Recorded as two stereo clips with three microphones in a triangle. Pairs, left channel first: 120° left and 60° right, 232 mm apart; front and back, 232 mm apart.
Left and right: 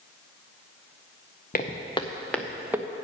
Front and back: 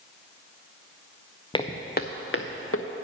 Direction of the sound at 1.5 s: 70° left.